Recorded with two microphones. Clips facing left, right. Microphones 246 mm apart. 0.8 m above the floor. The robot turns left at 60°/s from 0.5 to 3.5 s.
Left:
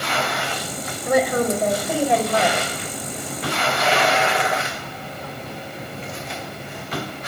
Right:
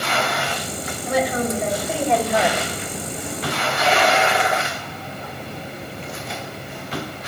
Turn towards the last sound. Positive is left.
turn(degrees=-80)